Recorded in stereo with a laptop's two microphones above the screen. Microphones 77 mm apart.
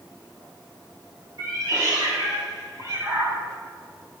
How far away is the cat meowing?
About 3 m.